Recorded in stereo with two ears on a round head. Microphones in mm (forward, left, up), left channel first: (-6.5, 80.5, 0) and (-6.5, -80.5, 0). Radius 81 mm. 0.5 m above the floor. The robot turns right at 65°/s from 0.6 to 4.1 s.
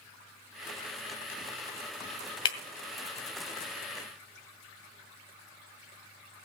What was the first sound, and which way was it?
Breaking glass, 25° left (ahead or behind).